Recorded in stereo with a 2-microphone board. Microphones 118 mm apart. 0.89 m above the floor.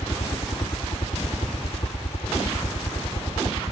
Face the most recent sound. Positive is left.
turn(degrees=60)  # may be behind; listen again after turning